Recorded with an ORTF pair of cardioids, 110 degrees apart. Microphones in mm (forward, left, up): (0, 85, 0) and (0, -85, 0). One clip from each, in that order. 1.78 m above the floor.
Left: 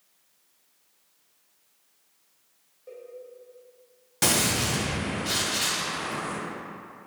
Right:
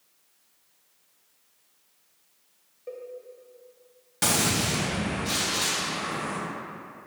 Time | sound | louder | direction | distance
2.9 | a cowbell | right 5 dB | 35° right | 1.0 m
4.2 | a gunshot | left 1 dB | 10° left | 1.2 m